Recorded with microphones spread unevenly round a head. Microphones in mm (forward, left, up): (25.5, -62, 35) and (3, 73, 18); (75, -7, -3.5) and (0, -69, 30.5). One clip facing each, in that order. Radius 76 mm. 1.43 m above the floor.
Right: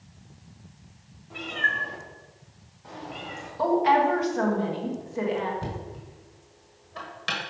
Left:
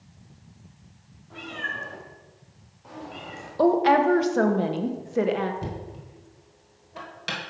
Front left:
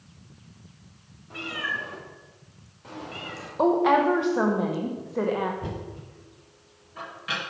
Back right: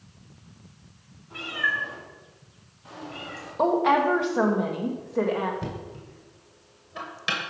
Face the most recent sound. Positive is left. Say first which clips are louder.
# even, even
turn(degrees=175)